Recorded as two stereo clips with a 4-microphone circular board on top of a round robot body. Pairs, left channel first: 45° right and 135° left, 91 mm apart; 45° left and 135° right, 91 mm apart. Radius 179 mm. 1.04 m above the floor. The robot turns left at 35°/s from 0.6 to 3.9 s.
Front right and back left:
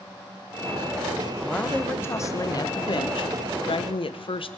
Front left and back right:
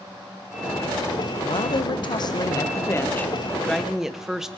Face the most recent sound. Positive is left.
turn(degrees=-50)